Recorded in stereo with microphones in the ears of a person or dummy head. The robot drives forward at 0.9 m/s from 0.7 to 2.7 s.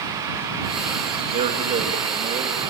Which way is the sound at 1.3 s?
40° right (ahead or behind).